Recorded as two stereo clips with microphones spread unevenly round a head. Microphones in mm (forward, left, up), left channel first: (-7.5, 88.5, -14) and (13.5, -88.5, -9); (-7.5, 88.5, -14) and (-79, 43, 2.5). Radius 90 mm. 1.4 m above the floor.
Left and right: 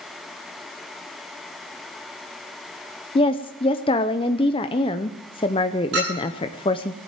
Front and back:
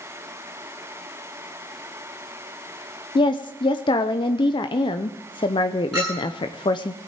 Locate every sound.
3.1 s a woman speaking: 35° left, 0.6 m
5.9 s a clink: 55° right, 9.5 m